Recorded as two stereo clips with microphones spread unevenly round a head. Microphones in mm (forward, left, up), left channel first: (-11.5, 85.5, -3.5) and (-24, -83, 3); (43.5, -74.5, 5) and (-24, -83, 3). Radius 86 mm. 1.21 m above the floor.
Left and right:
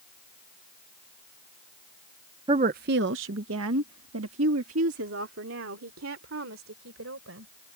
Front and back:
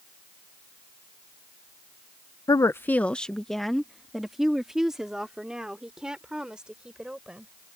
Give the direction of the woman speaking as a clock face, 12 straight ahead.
1 o'clock.